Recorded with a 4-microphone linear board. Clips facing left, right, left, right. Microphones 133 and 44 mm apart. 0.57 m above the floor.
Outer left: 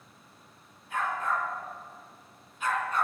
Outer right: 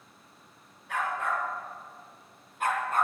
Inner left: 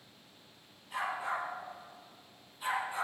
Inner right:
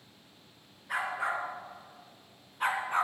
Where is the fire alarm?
No fire alarm in this recording.